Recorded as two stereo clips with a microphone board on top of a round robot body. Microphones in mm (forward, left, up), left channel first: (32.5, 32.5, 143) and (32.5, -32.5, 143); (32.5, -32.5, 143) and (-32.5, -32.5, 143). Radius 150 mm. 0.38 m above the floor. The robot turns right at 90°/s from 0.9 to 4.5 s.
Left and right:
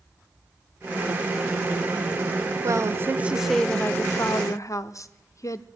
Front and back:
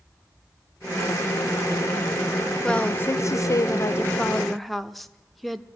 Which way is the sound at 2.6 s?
80° right.